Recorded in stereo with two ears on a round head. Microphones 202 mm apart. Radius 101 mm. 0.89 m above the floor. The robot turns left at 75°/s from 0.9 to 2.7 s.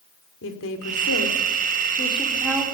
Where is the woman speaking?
60° left (ahead or behind), 3 m; by 2.6 s 15° right (ahead or behind), 3 m.